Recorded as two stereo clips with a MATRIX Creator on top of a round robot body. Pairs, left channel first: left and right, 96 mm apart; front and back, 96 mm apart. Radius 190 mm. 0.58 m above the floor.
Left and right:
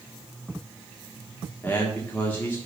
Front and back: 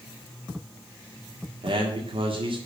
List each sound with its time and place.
1.6 s a man speaking: 160° left, 1.9 m